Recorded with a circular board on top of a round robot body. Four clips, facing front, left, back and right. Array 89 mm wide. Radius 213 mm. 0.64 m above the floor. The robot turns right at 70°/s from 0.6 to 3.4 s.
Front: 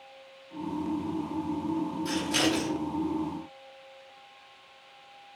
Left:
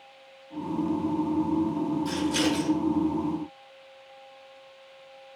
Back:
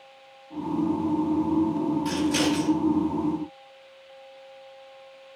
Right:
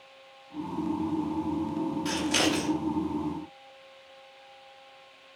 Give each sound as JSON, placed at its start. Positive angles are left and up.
{"t": 2.0, "sound": "scissors", "azimuth_deg": -105, "distance_m": 1.0}